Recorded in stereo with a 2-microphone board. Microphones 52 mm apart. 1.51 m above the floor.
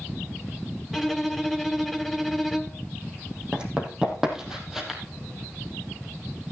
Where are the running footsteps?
15° right (ahead or behind), 3.5 m; by 5.0 s 5° right (ahead or behind), 2.5 m.